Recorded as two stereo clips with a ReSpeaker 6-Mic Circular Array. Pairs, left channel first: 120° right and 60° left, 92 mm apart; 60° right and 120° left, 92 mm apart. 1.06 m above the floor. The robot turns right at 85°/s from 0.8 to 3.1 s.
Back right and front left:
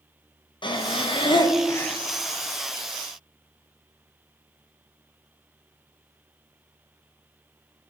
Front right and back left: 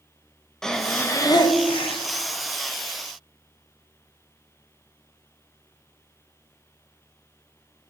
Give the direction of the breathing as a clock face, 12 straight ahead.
5 o'clock.